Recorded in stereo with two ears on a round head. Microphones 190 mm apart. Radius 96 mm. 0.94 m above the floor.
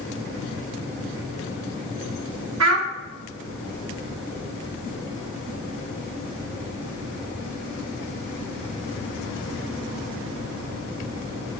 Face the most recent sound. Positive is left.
turn(degrees=-70)  # may be behind; listen again after turning